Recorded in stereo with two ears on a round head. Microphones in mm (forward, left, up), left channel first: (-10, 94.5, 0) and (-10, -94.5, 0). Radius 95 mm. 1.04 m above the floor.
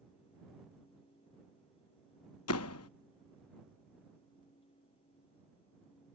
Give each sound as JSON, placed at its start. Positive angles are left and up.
{"t": 2.5, "sound": "a door slam", "side_deg": 80}